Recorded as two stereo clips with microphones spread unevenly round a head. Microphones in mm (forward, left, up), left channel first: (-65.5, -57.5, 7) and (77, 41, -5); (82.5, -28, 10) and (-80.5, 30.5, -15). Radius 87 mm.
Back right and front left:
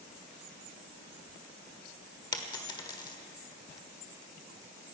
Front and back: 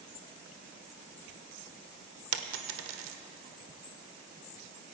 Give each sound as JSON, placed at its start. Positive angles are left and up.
{"t": 2.3, "sound": "a dropped coin", "azimuth_deg": 150, "distance_m": 1.3}